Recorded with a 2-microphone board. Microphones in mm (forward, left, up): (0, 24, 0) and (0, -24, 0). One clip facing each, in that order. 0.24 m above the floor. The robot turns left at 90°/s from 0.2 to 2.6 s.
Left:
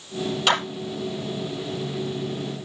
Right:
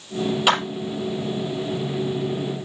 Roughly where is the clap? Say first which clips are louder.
Right 2 dB; centre.